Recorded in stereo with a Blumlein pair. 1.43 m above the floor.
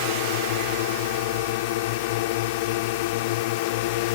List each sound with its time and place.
0.0 s a drone: 50° left